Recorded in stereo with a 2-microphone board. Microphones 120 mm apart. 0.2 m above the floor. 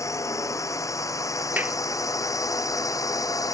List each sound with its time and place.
0.0 s a drone: 25° left (ahead or behind); by 3.5 s 30° left (ahead or behind)
1.6 s a clap: 15° right (ahead or behind)